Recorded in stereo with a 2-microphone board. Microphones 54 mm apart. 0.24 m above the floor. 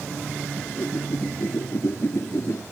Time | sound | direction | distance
0.6 | a whoosh | 50° left (ahead or behind) | ?